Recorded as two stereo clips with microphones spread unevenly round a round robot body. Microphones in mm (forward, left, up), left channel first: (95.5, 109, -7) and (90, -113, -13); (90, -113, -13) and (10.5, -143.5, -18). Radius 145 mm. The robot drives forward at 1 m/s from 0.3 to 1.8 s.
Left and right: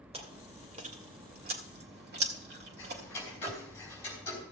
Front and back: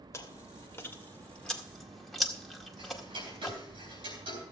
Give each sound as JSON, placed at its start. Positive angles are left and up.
{"t": 0.1, "sound": "chewing", "azimuth_deg": -35, "distance_m": 2.5}
{"t": 2.8, "sound": "ticking", "azimuth_deg": 170, "distance_m": 3.5}